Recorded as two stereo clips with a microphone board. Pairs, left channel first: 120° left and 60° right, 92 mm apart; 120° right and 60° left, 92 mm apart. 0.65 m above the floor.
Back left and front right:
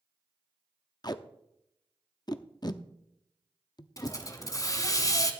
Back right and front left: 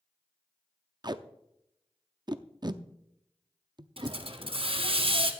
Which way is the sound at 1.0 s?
90° left.